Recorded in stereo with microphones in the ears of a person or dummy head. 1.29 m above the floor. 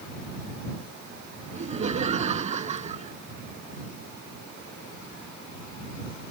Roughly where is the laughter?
Right.